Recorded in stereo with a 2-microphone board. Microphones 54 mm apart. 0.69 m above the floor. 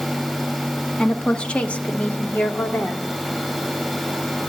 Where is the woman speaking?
10° left (ahead or behind), 0.8 m; by 3.0 s 40° left (ahead or behind), 1.7 m.